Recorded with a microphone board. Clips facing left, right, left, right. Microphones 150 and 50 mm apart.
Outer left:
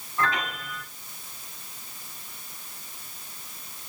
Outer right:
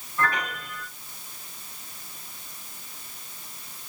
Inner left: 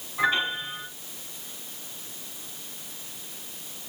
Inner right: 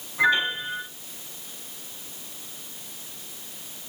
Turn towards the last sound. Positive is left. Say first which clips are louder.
# even, inner right 3 dB
turn(degrees=20)  # may be behind; listen again after turning